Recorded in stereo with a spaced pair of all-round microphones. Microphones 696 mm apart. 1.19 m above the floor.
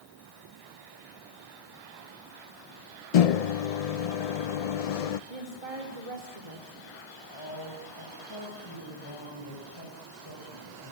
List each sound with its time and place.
3.1 s a microwave: 60° left (ahead or behind), 0.6 m
5.3 s a woman speaking: 55° right (ahead or behind), 3 m
7.3 s a man speaking: 35° left (ahead or behind), 6.5 m